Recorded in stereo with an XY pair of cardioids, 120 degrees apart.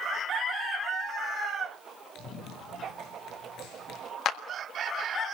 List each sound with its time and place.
2.1 s running footsteps: 65° left, 7.5 m
4.2 s a clap: 60° left, 1.5 m